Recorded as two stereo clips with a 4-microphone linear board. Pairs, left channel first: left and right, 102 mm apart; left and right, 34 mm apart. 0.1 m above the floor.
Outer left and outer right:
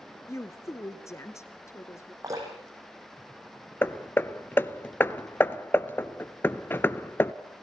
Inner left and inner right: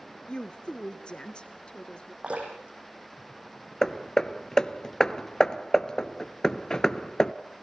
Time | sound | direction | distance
0.3 | a woman speaking | 30° left (ahead or behind) | 1.4 m
2.2 | dripping | 35° right (ahead or behind) | 5.5 m
3.8 | hammering | 20° left (ahead or behind) | 0.6 m